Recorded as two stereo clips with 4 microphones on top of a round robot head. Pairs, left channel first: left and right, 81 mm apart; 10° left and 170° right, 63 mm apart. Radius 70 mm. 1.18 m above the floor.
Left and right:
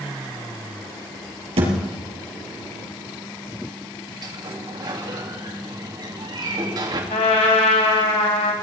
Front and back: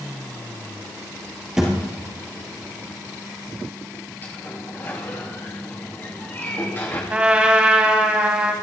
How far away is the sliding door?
About 3 m.